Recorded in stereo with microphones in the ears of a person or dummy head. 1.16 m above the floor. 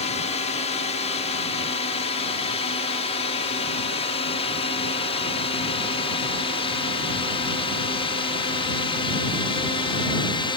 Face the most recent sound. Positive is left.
turn(degrees=25)  # may be behind; listen again after turning